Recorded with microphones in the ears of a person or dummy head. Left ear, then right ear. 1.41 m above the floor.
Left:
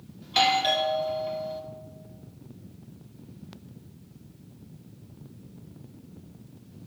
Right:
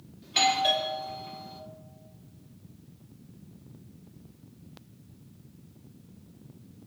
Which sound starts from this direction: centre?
A doorbell, at 0.2 s.